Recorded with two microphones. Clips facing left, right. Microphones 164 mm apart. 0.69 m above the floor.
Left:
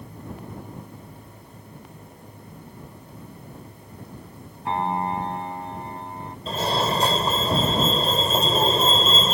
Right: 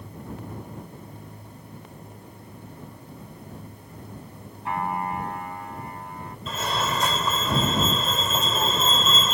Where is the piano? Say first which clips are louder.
Left 3 dB; 30° left (ahead or behind).